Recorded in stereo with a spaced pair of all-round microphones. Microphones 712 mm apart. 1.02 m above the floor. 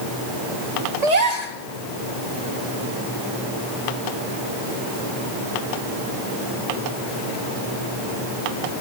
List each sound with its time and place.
1.0 s a gasp: 65° right (ahead or behind), 1.4 m